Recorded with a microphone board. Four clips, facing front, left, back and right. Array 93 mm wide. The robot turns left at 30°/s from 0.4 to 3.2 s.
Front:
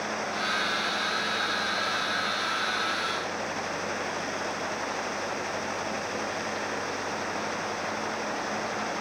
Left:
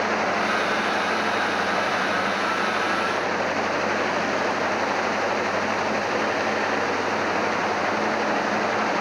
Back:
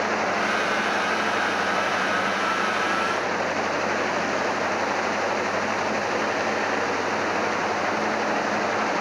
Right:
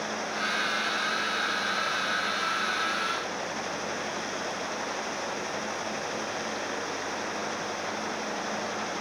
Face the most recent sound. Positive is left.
No sound to turn to.